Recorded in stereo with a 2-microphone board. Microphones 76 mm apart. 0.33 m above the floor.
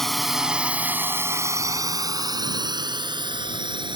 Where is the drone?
5° left (ahead or behind); by 4.0 s 75° right (ahead or behind).